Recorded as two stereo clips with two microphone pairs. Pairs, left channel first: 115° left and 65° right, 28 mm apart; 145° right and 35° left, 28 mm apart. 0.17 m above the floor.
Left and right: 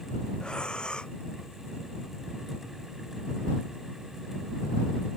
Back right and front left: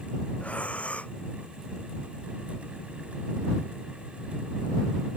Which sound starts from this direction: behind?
Breathing, at 0.4 s.